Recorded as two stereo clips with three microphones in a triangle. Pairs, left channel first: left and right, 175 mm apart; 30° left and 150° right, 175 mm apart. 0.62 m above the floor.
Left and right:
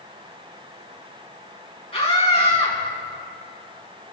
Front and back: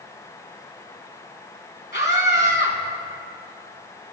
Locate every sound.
1.9 s a scream: 35° left, 4.5 m